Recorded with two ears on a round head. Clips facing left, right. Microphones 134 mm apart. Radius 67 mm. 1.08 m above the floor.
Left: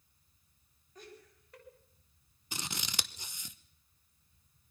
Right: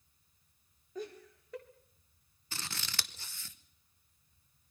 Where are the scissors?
15° left (ahead or behind), 0.9 m.